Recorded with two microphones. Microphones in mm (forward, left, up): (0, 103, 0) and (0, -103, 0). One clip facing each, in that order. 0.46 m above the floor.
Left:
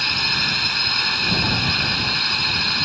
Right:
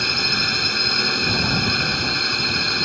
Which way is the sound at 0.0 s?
50° right (ahead or behind).